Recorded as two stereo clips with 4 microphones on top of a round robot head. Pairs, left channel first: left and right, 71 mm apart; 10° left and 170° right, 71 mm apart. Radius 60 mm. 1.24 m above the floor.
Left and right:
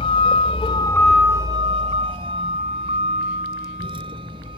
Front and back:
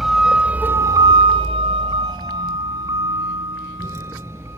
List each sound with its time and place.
0.0 s a vehicle: 105° left; by 4.6 s 105° right